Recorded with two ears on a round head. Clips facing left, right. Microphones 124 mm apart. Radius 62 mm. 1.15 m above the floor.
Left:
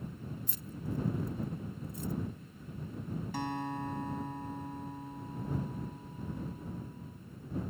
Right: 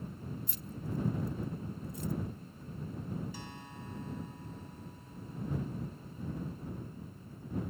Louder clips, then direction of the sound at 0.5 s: Left 1 dB; 70° left (ahead or behind).